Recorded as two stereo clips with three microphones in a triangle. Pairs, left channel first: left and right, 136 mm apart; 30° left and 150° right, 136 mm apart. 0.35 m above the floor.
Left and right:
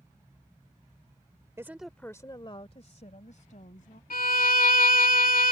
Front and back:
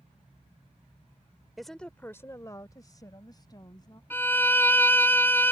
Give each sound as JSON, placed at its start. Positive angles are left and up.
{"t": 1.6, "sound": "a woman speaking", "azimuth_deg": -65}
{"t": 4.1, "sound": "a violin", "azimuth_deg": 105}